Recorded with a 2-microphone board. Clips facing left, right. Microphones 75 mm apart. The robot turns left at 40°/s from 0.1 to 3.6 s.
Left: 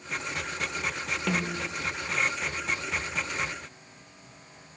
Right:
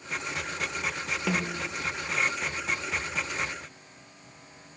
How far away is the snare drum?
About 1.2 m.